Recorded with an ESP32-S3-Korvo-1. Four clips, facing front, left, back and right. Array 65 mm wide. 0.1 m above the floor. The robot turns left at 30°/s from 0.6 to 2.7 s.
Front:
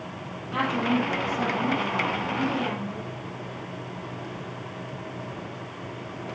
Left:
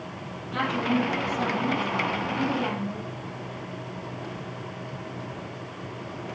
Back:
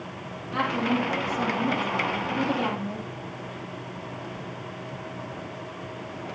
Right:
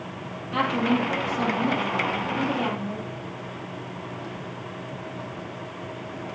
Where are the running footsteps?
No running footsteps in this recording.